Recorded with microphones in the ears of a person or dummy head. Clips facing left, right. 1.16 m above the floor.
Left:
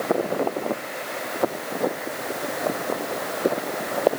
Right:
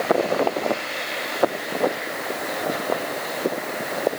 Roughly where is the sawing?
No sawing in this recording.